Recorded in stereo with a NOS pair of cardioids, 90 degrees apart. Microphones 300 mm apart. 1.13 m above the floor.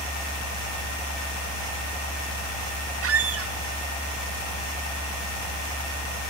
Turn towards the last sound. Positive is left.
turn(degrees=-50)